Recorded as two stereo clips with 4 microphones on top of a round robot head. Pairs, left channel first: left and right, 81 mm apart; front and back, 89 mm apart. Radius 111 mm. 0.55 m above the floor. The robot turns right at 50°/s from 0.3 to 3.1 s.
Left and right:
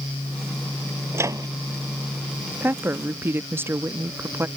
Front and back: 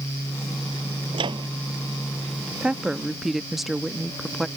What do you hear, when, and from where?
1.1 s a microwave: 150° right; by 1.5 s 135° right
2.6 s a woman speaking: 120° right; by 4.5 s 95° right